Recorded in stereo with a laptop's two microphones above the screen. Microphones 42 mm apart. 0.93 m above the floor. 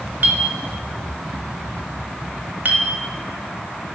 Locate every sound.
0.2 s a clink: 50° right (ahead or behind), 0.7 m